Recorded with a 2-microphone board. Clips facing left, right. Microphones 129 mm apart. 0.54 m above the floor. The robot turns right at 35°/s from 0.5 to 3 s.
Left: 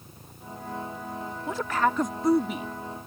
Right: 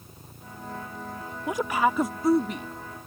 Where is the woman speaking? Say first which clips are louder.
Right 2 dB; 35° right; by 2.7 s 10° left.